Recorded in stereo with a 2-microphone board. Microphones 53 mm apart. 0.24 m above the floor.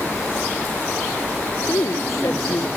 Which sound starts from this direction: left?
A woman speaking, at 1.7 s.